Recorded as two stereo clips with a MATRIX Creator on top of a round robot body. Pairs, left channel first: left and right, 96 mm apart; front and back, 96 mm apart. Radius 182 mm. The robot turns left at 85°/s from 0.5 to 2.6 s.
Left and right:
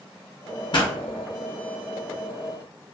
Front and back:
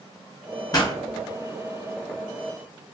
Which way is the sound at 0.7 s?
55° left.